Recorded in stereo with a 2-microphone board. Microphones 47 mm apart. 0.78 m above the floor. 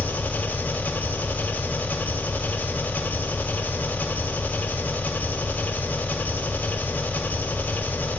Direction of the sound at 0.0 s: 45° left (ahead or behind).